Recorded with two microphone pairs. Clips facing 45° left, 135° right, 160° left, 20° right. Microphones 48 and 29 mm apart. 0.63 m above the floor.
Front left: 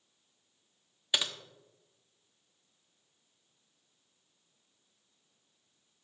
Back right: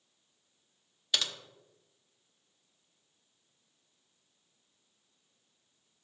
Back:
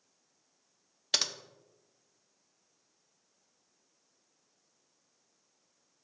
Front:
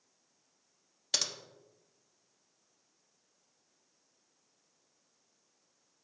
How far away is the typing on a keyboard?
About 0.7 m.